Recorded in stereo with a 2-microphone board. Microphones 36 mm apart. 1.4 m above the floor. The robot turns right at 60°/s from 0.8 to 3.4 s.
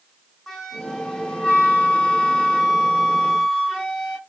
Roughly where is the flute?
Centre.